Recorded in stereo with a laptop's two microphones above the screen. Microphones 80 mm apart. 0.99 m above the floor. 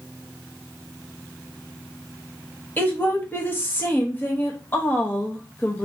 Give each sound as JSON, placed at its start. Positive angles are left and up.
{"t": 2.8, "sound": "a woman speaking", "side_deg": 25, "distance_m": 1.0}